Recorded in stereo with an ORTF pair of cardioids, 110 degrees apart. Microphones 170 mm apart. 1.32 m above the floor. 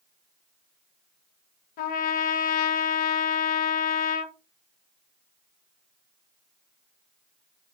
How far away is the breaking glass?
I don't hear breaking glass.